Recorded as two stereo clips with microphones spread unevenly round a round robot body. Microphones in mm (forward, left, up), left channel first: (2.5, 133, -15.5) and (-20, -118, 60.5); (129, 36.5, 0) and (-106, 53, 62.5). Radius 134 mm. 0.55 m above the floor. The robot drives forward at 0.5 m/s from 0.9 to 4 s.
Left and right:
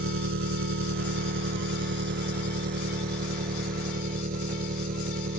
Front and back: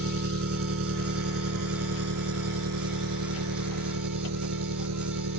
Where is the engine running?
140° right; by 5.4 s 150° right.